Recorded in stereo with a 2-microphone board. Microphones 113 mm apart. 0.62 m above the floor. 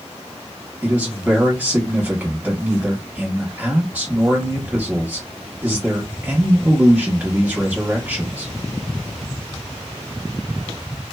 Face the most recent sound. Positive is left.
turn(degrees=-15)  # may be behind; listen again after turning